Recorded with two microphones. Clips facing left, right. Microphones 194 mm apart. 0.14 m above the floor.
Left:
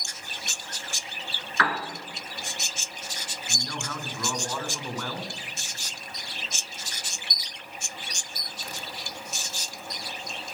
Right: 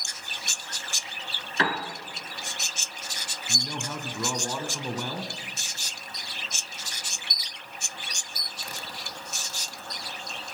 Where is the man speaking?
20° right (ahead or behind), 1.1 m.